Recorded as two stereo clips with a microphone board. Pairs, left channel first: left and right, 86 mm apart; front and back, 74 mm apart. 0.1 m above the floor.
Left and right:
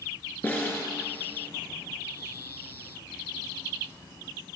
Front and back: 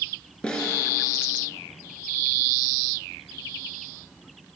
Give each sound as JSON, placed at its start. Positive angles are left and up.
{"t": 0.4, "sound": "a snare drum", "azimuth_deg": 55, "distance_m": 1.4}